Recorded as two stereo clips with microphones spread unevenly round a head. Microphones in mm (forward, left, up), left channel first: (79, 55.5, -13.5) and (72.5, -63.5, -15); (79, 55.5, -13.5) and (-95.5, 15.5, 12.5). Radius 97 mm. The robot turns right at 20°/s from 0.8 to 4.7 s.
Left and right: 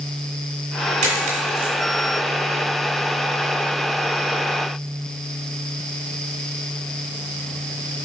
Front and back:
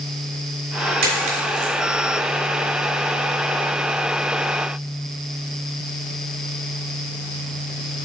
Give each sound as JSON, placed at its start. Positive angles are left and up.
{"t": 1.0, "sound": "a dropped coin", "azimuth_deg": -130, "distance_m": 1.9}